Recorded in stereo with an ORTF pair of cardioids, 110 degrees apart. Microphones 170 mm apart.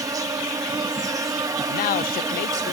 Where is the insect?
20° right.